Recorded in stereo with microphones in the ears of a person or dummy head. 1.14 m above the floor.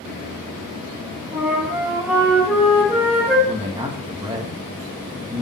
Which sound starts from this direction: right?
A man speaking, at 3.5 s.